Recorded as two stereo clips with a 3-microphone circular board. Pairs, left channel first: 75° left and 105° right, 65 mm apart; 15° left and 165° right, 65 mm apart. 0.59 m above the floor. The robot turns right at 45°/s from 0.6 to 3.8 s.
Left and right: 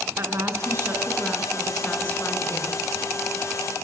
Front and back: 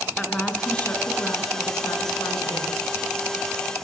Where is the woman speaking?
60° right, 6.5 m; by 2.8 s 40° left, 6.5 m.